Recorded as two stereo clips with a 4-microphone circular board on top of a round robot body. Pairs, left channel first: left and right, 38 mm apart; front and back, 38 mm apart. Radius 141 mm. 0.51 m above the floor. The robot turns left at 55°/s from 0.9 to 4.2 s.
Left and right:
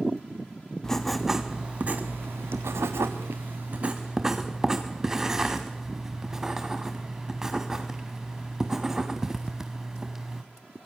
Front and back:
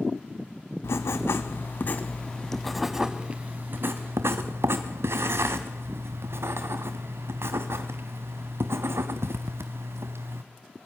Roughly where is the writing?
Ahead.